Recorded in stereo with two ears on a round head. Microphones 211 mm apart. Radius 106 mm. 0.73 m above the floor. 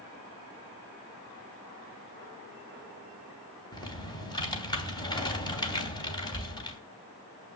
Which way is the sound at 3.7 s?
20° left (ahead or behind).